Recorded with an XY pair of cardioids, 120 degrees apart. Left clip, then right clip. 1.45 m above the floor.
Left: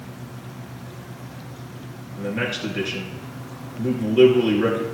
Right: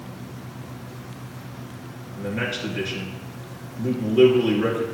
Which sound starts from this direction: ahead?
A man speaking, at 2.2 s.